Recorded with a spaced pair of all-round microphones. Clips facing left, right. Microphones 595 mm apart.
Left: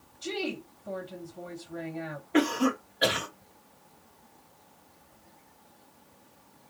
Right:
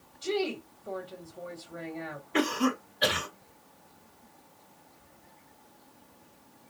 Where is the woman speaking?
20° left (ahead or behind), 1.4 m.